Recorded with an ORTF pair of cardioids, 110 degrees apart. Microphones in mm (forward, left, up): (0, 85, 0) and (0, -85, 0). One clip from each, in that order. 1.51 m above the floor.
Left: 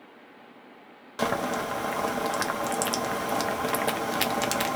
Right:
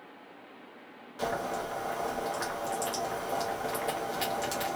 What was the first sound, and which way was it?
Boiling, 55° left.